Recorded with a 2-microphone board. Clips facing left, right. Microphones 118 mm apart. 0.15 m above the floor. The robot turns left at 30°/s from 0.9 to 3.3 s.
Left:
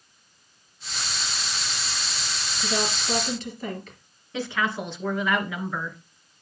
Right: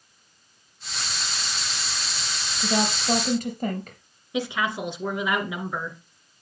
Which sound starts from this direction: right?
A woman speaking, at 2.6 s.